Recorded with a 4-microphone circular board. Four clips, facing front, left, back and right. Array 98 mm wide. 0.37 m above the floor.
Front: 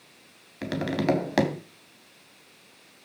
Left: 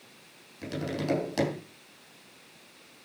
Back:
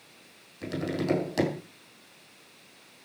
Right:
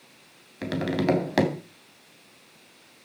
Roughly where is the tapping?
Ahead right.